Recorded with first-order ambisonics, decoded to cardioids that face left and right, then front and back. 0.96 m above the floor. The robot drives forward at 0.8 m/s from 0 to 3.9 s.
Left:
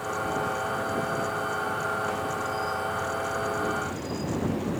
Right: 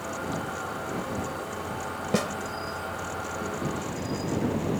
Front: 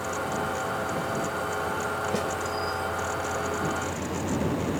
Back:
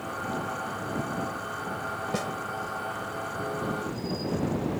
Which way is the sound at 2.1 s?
90° right.